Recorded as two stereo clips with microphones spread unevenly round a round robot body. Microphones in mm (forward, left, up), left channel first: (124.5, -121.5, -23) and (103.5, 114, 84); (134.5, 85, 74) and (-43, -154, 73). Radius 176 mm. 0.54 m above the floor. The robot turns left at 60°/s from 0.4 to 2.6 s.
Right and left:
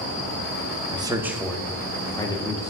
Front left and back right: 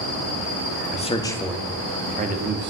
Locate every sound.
0.9 s a man speaking: straight ahead, 0.7 m; by 2.7 s 100° right, 0.7 m